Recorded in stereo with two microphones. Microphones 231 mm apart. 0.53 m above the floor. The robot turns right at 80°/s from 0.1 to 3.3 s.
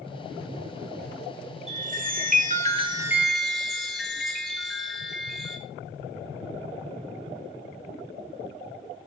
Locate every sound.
1.7 s a chime: 130° right, 1.0 m; by 5.6 s straight ahead, 1.0 m